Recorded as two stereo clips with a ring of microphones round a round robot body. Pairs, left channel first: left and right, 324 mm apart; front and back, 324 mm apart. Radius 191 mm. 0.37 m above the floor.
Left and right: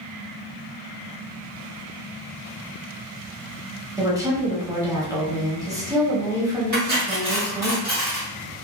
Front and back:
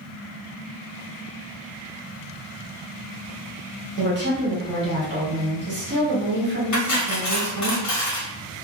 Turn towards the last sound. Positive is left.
turn(degrees=-30)